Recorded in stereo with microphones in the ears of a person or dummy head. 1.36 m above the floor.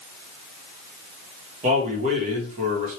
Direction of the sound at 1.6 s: 40° right (ahead or behind).